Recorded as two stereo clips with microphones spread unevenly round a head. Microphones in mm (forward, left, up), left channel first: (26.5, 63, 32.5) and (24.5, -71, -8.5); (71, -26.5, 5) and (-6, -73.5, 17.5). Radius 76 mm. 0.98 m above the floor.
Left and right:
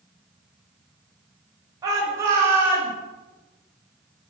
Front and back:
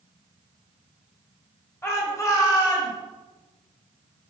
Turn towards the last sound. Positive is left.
turn(degrees=-15)